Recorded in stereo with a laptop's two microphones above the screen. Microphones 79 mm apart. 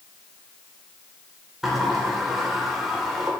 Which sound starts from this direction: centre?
A sliding door, at 1.6 s.